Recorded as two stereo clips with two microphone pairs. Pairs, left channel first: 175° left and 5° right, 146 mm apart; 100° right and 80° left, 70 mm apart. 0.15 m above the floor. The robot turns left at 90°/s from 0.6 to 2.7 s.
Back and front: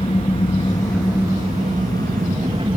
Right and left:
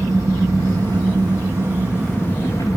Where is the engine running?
125° left, 4 m; by 2.8 s 65° right, 4 m.